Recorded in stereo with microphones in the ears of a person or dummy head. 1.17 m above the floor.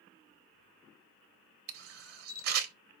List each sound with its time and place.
1.7 s a camera shutter: 50° right (ahead or behind), 1.2 m